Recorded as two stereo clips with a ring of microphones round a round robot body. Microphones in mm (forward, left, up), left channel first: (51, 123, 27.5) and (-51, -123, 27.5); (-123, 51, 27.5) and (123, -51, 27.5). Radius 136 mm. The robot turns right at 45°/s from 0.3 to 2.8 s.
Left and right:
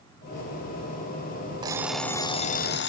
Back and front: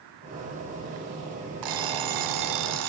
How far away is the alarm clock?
About 0.8 m.